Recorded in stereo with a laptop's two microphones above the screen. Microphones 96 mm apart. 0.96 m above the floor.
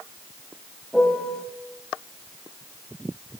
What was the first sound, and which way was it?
A piano, 5° left (ahead or behind).